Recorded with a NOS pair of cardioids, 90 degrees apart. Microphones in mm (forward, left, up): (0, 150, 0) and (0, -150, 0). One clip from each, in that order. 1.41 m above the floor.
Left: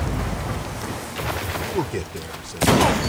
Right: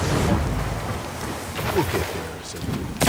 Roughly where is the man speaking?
Ahead.